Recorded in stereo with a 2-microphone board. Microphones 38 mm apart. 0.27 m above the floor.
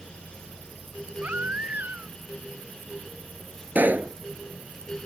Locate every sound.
1.2 s a baby crying: 50° right (ahead or behind)
3.8 s a pop: 50° right (ahead or behind)